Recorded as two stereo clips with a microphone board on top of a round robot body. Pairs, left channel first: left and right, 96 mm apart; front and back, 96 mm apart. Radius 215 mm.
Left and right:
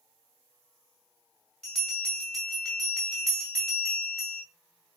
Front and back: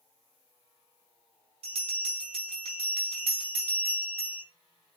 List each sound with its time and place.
1.6 s a bell: 175° left, 1.0 m